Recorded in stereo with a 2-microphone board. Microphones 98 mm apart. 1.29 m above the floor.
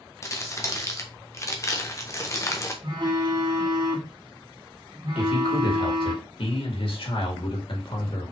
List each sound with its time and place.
0.2 s crumpling: 30° left (ahead or behind), 1.4 m
2.8 s a phone buzzing: 50° right (ahead or behind), 1.7 m
5.2 s a man speaking: 70° left (ahead or behind), 3 m